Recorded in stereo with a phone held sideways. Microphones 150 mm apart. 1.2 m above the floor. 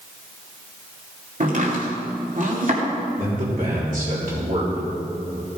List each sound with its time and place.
1.4 s chopping: 60° right (ahead or behind), 2.5 m
3.2 s a man speaking: 65° right (ahead or behind), 3.5 m